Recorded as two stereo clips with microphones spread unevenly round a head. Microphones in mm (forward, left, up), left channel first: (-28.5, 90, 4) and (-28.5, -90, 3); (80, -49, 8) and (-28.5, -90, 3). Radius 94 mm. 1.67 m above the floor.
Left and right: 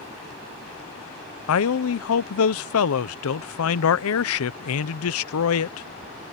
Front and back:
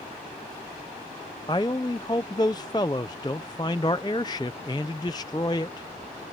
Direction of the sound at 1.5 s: 90° left.